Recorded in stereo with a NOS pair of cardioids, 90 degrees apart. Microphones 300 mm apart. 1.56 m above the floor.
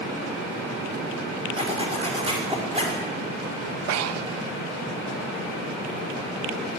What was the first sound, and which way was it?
A zipper, 20° right.